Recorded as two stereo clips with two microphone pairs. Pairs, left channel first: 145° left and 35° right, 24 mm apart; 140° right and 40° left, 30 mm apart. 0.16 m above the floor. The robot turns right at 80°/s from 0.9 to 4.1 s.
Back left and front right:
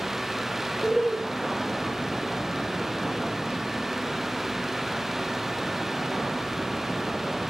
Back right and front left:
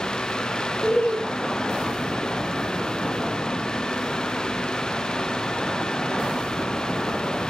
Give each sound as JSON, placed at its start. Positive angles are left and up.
{"t": 0.8, "sound": "laughter", "azimuth_deg": -130, "distance_m": 3.5}